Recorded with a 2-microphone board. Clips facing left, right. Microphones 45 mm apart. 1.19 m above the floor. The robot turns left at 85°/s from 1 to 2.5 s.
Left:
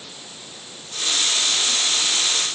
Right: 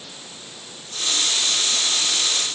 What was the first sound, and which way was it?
Only background noise.